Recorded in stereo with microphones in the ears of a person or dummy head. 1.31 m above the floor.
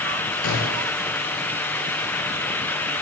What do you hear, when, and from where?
0.4 s a gunshot: 60° left (ahead or behind), 7 m